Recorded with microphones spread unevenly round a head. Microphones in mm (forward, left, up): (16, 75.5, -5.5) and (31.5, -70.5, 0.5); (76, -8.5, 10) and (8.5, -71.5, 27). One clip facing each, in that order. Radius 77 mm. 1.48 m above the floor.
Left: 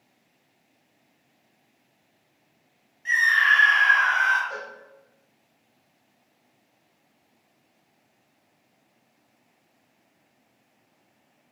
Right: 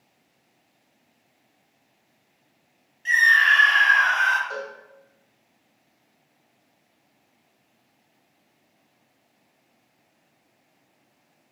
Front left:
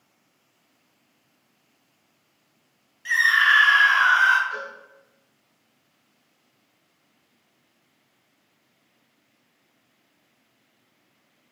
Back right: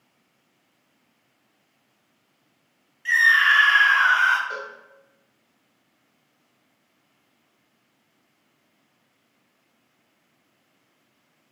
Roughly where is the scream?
Ahead right.